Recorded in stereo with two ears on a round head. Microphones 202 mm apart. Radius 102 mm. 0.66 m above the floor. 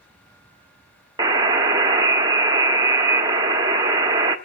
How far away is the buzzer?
About 1.0 m.